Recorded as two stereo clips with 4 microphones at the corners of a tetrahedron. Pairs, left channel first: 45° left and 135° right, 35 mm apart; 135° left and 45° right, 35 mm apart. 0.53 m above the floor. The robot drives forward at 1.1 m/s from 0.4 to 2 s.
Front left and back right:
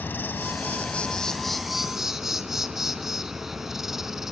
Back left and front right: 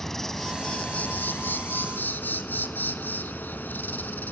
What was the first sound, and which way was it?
An insect, 55° left.